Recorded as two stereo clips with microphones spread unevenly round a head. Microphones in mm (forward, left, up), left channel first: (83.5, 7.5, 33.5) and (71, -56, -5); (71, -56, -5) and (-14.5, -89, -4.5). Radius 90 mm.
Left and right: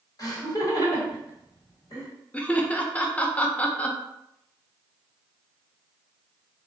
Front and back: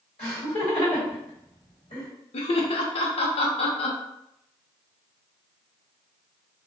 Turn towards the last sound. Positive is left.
turn(degrees=20)